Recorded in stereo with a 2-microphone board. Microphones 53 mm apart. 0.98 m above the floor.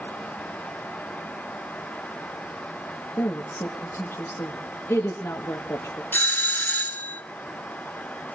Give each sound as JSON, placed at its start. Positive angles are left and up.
{"t": 3.2, "sound": "a woman speaking", "side_deg": 60, "distance_m": 1.5}
{"t": 6.1, "sound": "a doorbell", "side_deg": 40, "distance_m": 0.7}